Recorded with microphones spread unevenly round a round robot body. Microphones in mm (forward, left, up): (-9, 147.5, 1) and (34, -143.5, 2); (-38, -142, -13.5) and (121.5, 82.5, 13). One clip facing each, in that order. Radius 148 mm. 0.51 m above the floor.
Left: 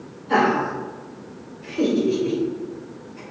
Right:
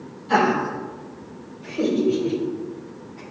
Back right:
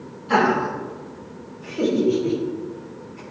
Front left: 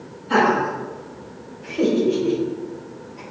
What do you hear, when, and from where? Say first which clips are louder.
0.3 s laughter: left 1 dB, front left 1 dB; 140° right, 3 m; by 3.2 s 160° left, 4.5 m